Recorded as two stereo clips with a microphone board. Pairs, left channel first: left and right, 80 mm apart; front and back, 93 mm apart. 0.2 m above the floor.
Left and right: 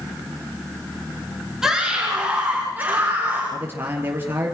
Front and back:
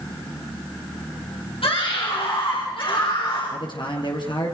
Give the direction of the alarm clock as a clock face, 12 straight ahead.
No alarm clock in this recording.